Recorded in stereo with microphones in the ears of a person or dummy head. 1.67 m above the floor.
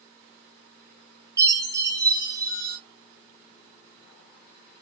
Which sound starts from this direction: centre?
A chime, at 1.4 s.